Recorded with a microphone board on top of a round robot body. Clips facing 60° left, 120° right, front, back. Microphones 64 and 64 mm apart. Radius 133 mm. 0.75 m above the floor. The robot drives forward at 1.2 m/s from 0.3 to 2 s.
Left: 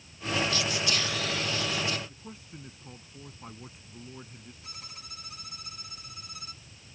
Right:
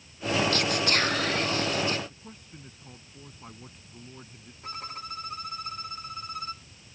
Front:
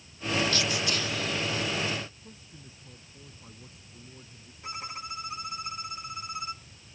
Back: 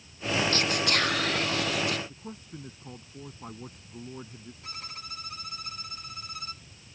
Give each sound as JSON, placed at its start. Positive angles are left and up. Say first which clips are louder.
{"t": 0.5, "sound": "whispering", "louder": "right 4 dB, back 3 dB", "azimuth_deg": -140}
{"t": 2.1, "sound": "a man speaking", "louder": "left 1 dB, back 8 dB", "azimuth_deg": 145}
{"t": 4.6, "sound": "a violin", "louder": "right 15 dB, front 7 dB", "azimuth_deg": -70}